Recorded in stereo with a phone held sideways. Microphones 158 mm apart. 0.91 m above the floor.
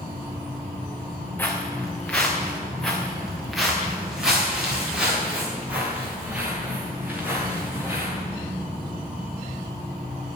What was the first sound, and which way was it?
Footsteps, 10° left (ahead or behind).